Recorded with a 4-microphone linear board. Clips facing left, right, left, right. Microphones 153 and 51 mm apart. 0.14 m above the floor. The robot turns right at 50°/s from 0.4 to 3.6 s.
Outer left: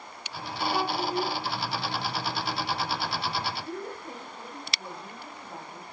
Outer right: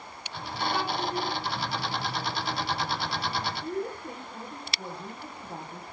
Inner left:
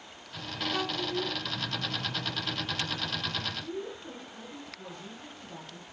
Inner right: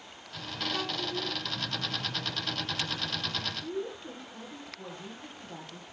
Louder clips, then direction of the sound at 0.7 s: Outer left 3 dB, inner left 3 dB; 15° left (ahead or behind).